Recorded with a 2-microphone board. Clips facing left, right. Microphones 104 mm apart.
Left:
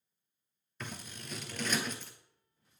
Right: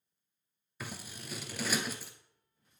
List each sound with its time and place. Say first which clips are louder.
0.8 s scissors: even; 5° right (ahead or behind), 0.7 m